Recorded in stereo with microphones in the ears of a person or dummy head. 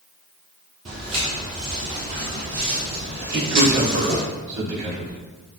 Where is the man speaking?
65° right (ahead or behind), 1.9 m.